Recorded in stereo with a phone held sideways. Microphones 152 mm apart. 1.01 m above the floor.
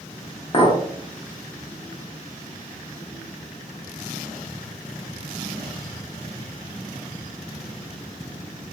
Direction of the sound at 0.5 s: 35° left (ahead or behind).